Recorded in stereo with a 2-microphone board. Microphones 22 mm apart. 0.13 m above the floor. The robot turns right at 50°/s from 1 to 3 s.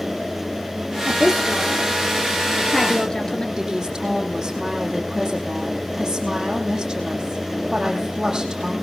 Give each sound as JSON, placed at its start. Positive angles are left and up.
{"t": 1.1, "sound": "a woman speaking", "side_deg": -45, "distance_m": 2.5}
{"t": 3.6, "sound": "a woman speaking", "side_deg": -25, "distance_m": 6.0}